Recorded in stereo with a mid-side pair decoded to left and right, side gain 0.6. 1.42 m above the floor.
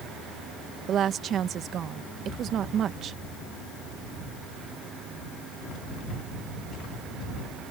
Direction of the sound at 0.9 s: 50° right.